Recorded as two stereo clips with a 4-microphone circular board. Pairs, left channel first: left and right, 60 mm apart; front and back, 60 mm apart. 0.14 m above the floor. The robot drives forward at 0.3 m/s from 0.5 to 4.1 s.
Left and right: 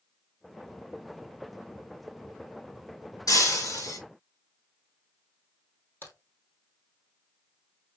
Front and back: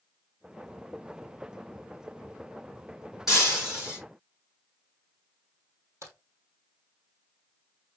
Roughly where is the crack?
Behind left.